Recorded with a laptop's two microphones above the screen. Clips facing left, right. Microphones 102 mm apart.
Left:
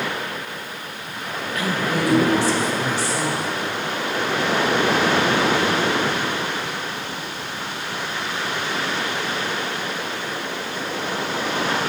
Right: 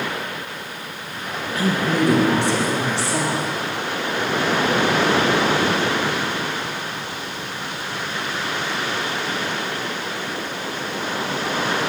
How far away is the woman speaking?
About 1.0 m.